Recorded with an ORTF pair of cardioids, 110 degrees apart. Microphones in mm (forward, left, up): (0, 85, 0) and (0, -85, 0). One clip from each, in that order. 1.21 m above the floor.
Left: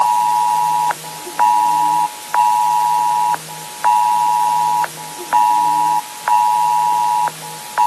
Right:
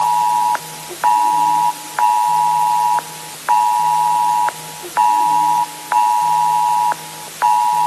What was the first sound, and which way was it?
Only background noise.